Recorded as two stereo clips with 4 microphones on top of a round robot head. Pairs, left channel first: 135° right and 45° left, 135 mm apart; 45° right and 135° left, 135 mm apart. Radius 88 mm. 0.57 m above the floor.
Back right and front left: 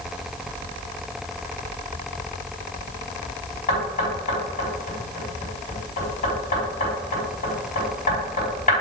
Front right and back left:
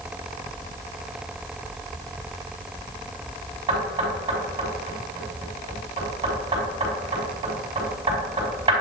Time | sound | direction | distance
3.7 | knocking | 170° right | 3.5 m